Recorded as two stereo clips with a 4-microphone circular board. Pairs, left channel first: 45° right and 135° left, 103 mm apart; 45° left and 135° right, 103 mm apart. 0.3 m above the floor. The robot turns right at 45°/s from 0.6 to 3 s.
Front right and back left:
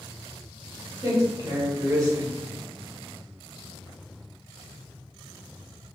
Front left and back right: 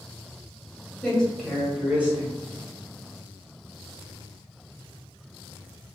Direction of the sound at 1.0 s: 115° left.